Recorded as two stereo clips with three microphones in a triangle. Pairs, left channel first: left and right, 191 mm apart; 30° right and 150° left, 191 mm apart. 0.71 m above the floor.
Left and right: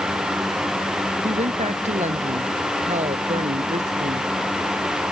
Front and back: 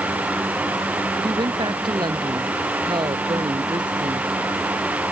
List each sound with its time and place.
1.2 s a woman speaking: 145° right